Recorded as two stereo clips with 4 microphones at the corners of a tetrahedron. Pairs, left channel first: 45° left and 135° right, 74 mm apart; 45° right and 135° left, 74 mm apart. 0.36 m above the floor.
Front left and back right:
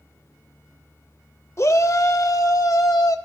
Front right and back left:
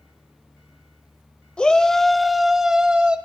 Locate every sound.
1.6 s a shout: 25° left, 1.0 m; by 3.2 s 65° left, 1.5 m